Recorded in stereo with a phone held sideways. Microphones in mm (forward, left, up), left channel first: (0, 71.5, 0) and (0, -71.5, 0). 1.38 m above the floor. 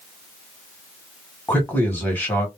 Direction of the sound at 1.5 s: 10° left (ahead or behind).